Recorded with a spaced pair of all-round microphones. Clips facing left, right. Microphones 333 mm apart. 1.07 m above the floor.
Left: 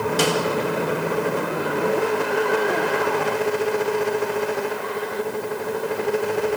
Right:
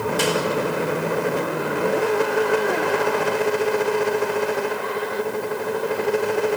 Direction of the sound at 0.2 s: 80° left.